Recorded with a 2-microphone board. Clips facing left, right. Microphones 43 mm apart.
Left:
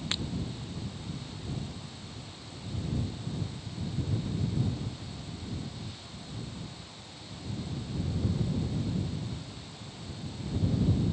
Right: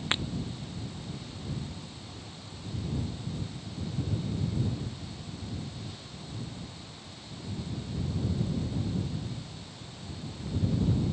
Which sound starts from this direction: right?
Breaking glass, at 0.1 s.